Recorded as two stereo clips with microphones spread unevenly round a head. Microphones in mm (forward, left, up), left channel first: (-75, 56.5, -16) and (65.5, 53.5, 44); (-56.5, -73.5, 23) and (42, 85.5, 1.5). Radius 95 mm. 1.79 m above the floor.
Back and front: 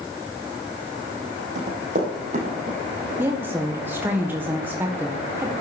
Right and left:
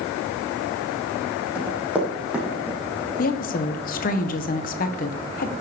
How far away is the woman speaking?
About 1.4 m.